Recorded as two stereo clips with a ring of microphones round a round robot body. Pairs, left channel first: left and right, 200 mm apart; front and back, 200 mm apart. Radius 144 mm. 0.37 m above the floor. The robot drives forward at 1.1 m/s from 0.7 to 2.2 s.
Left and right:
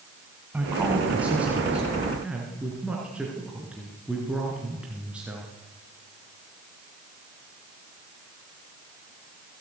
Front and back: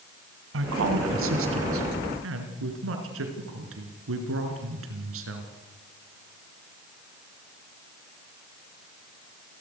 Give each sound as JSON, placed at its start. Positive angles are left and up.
{"t": 0.5, "sound": "a woman speaking", "azimuth_deg": -175, "distance_m": 3.0}